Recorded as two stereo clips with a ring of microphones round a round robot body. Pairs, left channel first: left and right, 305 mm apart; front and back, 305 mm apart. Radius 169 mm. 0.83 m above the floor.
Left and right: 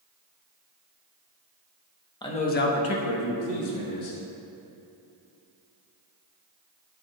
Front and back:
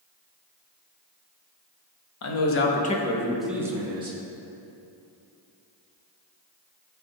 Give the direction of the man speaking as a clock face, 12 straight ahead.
11 o'clock.